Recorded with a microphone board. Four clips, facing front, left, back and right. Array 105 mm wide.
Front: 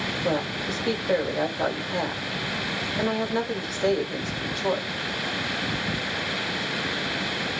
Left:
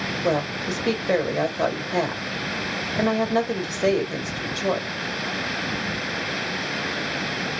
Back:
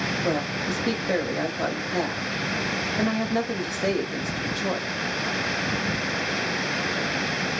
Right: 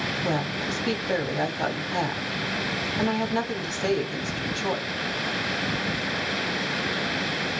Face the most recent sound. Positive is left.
turn(degrees=90)